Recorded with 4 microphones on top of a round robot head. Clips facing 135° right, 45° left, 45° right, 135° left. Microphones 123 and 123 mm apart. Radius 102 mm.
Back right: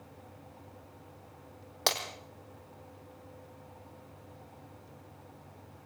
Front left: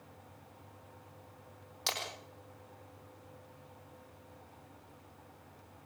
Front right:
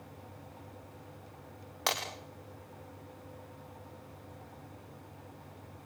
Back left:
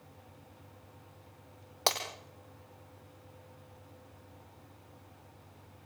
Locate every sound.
1.9 s breaking glass: 165° right, 3.5 m